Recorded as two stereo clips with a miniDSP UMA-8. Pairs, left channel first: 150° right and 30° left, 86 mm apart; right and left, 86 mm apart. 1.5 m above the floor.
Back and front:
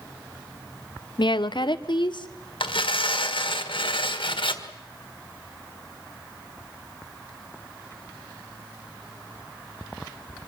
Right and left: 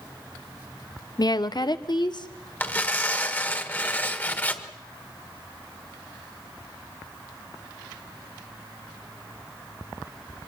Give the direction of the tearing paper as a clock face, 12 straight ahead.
5 o'clock.